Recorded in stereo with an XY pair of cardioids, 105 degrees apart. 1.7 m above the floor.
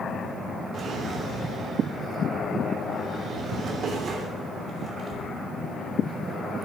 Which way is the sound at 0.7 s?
55° right.